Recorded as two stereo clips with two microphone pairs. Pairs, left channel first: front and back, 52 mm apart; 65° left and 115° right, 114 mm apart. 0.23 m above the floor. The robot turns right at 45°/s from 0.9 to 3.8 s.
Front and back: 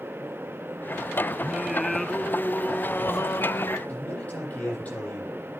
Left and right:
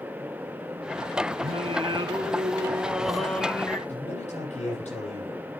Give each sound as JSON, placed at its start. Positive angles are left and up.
{"t": 1.4, "sound": "singing", "azimuth_deg": -105, "distance_m": 0.9}
{"t": 3.9, "sound": "a man speaking", "azimuth_deg": 60, "distance_m": 9.5}